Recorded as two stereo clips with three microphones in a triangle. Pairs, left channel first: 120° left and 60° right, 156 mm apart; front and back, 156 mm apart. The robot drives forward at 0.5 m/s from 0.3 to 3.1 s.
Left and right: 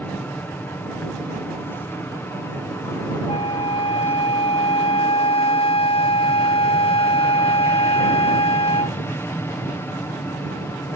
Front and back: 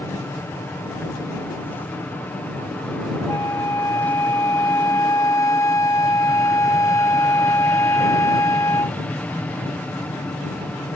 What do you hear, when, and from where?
0.0 s an aircraft: 55° left; by 11.0 s 70° left
3.3 s a flute: 70° left